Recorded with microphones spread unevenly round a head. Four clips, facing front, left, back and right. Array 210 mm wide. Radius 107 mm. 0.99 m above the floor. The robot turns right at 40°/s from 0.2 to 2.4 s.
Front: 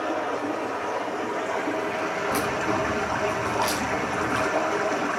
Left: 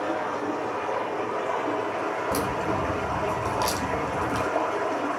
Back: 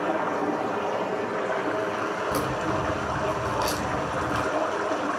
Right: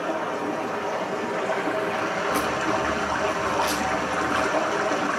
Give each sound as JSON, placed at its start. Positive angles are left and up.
{"t": 0.0, "sound": "running water", "azimuth_deg": -175, "distance_m": 3.0}
{"t": 2.3, "sound": "a crack", "azimuth_deg": 135, "distance_m": 2.0}